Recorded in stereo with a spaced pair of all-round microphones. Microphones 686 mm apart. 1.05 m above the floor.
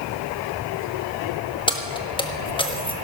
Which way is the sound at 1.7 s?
5° left (ahead or behind).